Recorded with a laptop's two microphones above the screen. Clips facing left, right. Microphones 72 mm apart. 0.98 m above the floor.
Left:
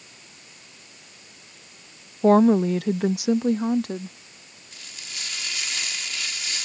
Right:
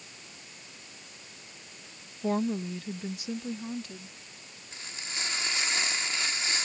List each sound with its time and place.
2.2 s a woman speaking: 50° left (ahead or behind); by 4.2 s 60° left (ahead or behind)
4.7 s frying: 30° right (ahead or behind)